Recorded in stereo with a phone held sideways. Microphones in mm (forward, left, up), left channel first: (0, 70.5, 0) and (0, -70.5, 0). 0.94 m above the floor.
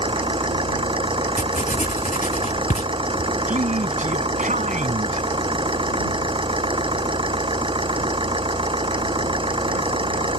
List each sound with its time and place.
0.0 s an engine running: 35° right (ahead or behind)
1.4 s writing: 65° left (ahead or behind)
3.5 s a man speaking: 65° right (ahead or behind)